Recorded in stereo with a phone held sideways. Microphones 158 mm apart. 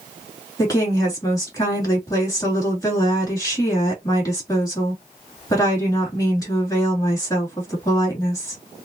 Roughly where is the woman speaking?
Left.